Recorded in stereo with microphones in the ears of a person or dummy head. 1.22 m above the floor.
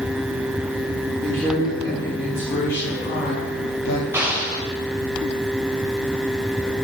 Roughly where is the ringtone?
No ringtone in this recording.